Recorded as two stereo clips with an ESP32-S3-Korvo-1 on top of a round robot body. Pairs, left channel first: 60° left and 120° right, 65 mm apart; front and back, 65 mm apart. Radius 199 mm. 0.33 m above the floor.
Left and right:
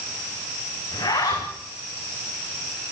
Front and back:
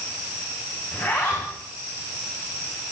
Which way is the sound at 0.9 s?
60° left.